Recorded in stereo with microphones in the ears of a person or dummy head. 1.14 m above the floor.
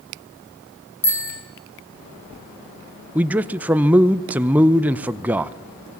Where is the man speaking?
10° right (ahead or behind), 0.6 m.